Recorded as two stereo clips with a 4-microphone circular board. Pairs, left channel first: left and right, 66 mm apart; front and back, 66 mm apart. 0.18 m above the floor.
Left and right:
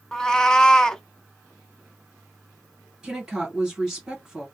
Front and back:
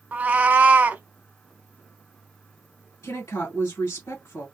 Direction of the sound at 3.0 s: 10° right.